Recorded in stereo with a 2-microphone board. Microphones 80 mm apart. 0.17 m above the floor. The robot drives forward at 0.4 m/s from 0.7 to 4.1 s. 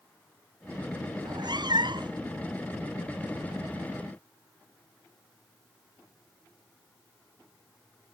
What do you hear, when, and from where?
1.2 s a cat meowing: 60° right (ahead or behind); by 2.2 s 65° right (ahead or behind)